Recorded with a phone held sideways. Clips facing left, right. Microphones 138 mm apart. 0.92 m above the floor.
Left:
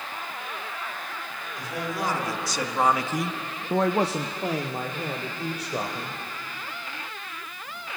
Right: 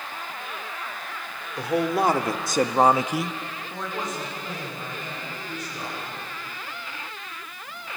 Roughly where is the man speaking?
Right.